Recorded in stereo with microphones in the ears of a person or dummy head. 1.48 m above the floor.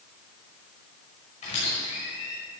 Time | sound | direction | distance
1.4 | a squeak | 40° left (ahead or behind) | 6 m